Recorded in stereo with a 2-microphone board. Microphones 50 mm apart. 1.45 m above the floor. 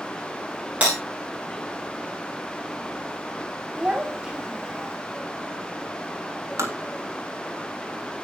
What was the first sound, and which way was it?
Breaking glass, 25° right (ahead or behind).